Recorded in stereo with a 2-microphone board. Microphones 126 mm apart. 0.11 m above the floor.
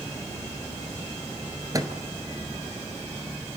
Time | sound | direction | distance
1.7 | a microwave | 30° right (ahead or behind) | 1.3 m